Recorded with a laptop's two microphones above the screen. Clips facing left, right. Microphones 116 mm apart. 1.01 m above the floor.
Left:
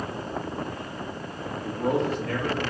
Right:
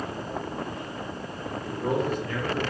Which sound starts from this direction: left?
A man speaking, at 1.6 s.